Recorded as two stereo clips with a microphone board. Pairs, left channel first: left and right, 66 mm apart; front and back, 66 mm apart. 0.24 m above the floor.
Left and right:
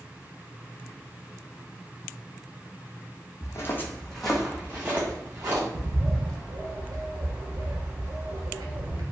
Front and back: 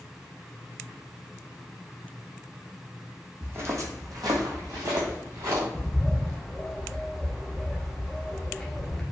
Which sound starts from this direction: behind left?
Footsteps, at 3.4 s.